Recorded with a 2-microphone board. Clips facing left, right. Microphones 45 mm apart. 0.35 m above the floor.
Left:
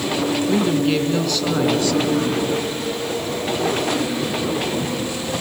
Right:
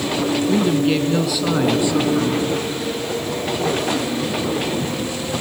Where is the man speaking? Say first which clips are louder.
Right 1 dB; centre (ahead or behind), 3.5 m; by 2.5 s 30° right (ahead or behind), 2.5 m.